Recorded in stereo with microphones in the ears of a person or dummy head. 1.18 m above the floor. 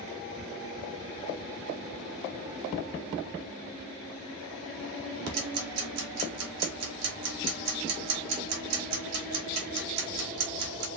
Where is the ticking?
85° right, 2 m.